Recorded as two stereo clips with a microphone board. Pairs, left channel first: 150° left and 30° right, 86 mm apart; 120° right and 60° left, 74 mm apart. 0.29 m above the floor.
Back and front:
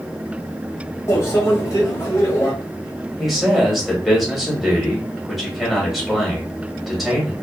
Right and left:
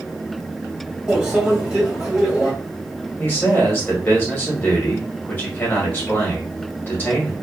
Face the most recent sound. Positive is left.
turn(degrees=-115)